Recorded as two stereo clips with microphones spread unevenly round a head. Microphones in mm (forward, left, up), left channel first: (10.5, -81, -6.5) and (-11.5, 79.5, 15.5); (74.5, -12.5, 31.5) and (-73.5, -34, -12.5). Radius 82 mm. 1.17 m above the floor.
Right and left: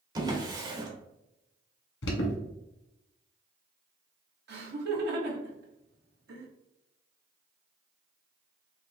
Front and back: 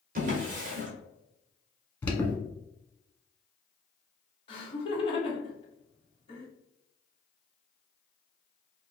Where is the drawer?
145° left, 1.1 m.